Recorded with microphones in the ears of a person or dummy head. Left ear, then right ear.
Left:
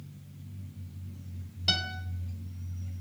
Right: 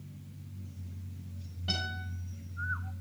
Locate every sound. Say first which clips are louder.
1.7 s a guitar: left 6 dB; 80° left, 2.5 m